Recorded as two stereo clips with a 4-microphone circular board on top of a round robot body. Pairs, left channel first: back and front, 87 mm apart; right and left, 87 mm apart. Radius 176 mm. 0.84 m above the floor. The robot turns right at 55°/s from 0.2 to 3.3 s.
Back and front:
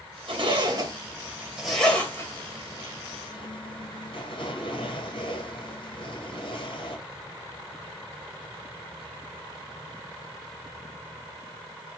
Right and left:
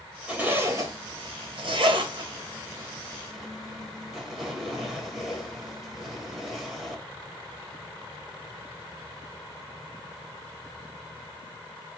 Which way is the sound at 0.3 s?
15° left.